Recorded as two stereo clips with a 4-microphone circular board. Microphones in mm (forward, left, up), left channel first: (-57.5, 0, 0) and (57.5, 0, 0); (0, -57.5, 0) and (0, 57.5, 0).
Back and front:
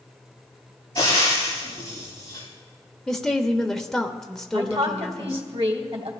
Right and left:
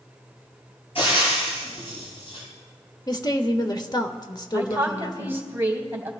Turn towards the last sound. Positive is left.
turn(degrees=20)